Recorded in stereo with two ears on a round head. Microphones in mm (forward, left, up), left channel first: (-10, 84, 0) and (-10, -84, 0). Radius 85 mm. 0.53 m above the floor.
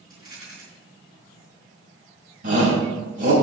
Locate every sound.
0.1 s a rattle: 20° right (ahead or behind), 5 m
2.4 s a shout: 45° right (ahead or behind), 4 m